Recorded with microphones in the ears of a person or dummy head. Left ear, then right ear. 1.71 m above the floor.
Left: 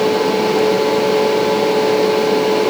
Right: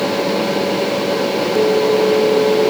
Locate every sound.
Only background noise.